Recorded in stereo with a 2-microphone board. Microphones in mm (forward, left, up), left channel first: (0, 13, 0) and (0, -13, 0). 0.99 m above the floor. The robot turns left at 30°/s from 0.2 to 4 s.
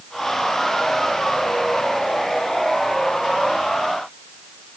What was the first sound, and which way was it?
Only background noise.